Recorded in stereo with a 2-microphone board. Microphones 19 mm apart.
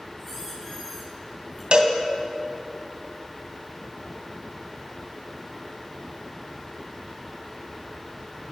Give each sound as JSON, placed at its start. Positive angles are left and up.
{"t": 0.2, "sound": "a squeak", "side_deg": 15, "distance_m": 8.0}
{"t": 1.7, "sound": "a cowbell", "side_deg": -50, "distance_m": 2.0}